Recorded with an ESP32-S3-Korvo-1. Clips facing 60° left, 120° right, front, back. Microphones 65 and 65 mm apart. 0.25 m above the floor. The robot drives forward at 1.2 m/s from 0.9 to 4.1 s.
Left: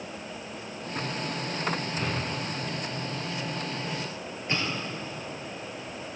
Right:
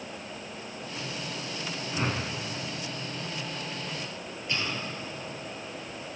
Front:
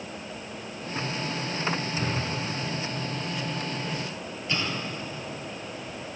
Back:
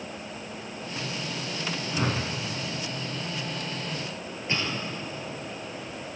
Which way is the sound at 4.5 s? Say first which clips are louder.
Left 2 dB, even; 120° left.